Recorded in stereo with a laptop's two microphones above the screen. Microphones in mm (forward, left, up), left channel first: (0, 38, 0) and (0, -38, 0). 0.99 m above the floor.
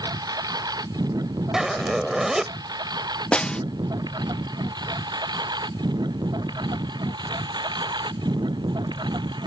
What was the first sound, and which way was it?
A lawn mower, 60° right (ahead or behind).